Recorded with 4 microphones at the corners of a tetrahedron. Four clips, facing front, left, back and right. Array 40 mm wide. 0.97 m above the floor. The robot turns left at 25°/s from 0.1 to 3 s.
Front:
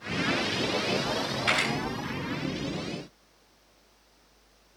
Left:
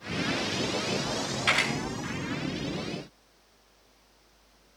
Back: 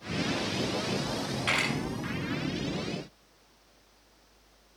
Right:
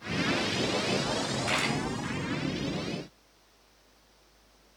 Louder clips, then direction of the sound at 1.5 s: Left 5 dB, front 2 dB; 105° left.